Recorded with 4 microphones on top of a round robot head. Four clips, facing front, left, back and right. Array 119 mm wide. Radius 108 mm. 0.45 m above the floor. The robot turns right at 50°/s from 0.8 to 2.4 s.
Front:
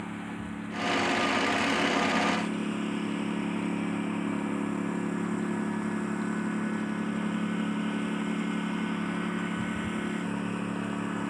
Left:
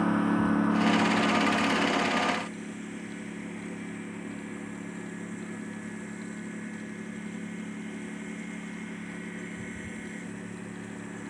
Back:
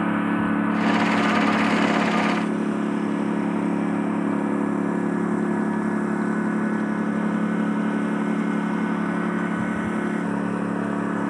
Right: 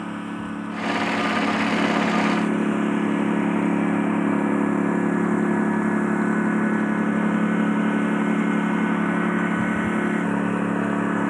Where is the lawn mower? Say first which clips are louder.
Left 5 dB, back 15 dB; 160° left; by 11.3 s 120° right.